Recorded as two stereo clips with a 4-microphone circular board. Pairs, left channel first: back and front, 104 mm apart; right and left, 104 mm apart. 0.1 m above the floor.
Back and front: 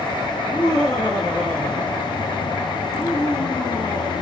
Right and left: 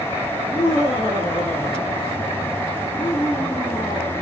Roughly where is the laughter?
Behind right.